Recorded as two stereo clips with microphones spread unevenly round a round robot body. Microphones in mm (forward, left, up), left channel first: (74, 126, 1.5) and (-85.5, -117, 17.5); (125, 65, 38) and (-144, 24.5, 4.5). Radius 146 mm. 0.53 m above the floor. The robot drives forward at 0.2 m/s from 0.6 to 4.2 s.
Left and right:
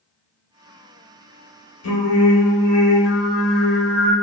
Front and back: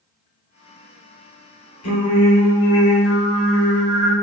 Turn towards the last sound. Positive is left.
turn(degrees=50)